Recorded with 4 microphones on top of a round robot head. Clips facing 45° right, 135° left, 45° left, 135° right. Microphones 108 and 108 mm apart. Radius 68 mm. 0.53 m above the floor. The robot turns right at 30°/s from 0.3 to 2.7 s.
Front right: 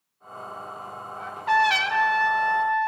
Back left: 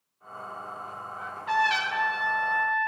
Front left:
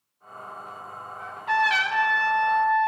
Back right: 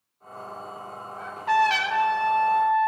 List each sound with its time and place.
1.2 s a trumpet: 95° right, 1.9 m; by 2.9 s 50° right, 1.9 m